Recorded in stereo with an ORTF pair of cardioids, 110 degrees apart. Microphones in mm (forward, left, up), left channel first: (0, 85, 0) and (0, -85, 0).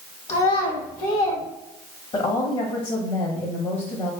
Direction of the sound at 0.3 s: 40° left.